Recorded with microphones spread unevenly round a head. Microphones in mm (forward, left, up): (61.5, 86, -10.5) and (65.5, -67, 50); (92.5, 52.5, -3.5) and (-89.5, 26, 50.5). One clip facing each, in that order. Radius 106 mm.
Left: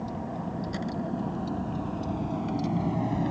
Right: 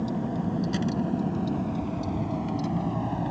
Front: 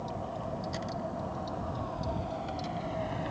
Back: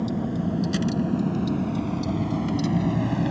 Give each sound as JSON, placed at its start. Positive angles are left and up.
{"t": 0.0, "sound": "a vehicle", "azimuth_deg": -150}